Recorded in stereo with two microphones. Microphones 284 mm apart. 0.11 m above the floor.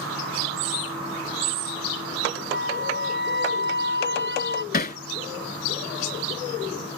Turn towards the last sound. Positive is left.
turn(degrees=35)  # may be behind; listen again after turning